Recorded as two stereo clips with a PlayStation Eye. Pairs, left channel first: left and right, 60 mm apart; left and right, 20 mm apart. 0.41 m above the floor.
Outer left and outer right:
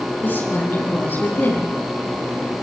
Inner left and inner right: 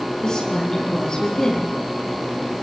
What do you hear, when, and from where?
0.2 s a woman speaking: 35° left (ahead or behind), 8.5 m